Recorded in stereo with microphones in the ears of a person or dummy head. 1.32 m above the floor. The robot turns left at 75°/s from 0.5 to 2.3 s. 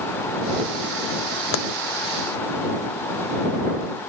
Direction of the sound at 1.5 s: 85° left.